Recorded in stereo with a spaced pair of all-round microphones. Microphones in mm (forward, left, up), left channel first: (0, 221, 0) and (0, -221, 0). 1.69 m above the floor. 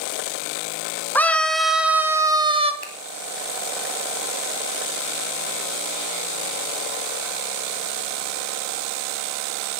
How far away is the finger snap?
About 3.5 m.